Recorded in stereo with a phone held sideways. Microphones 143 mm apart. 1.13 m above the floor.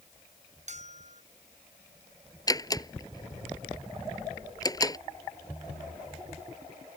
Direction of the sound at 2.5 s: 25° left (ahead or behind).